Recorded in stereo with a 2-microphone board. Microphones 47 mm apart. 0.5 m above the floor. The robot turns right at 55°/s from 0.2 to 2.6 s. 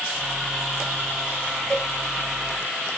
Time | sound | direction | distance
1.7 | a cowbell | 15° left (ahead or behind) | 0.6 m